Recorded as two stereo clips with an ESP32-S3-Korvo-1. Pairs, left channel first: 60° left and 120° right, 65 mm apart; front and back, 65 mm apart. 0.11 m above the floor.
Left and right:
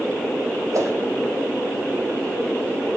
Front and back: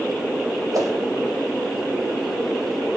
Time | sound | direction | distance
0.7 | a whoosh | 155° right | 2.5 m